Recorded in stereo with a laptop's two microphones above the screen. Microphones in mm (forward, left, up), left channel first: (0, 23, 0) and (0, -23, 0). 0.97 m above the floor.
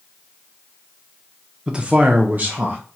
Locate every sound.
1.7 s a man speaking: 15° right (ahead or behind), 0.7 m; by 2.8 s 35° right (ahead or behind), 0.8 m